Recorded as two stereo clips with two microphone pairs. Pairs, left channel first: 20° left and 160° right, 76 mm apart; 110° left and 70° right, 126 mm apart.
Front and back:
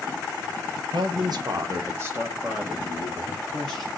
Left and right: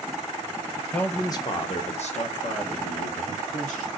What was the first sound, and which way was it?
A man speaking, 165° right.